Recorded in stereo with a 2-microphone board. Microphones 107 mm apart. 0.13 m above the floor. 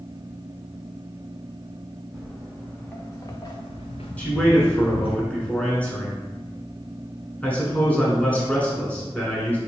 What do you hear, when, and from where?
2.1 s footsteps: centre (ahead or behind), 1.4 m; by 5.2 s 65° left (ahead or behind), 1.2 m
4.2 s a man speaking: 15° left (ahead or behind), 1.2 m